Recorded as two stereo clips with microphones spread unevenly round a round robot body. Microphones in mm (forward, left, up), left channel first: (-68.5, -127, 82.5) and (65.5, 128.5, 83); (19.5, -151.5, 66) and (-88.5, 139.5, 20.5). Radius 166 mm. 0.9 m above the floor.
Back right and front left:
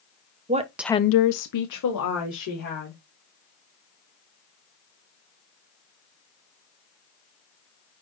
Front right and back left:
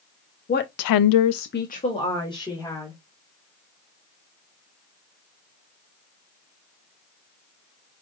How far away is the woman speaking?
About 1.0 m.